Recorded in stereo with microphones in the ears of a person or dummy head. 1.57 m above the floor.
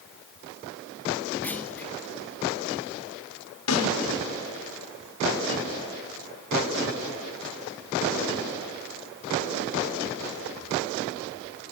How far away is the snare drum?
About 5.5 m.